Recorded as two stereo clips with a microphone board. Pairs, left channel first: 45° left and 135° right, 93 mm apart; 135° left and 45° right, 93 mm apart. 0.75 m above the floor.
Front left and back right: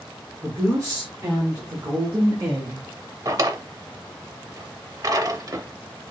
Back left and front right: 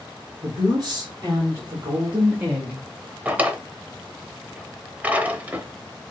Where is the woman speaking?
80° right, 3 m; by 2.9 s 120° right, 1.1 m.